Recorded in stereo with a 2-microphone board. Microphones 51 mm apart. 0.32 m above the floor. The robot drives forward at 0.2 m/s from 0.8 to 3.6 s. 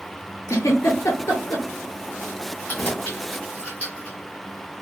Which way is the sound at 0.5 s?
80° left.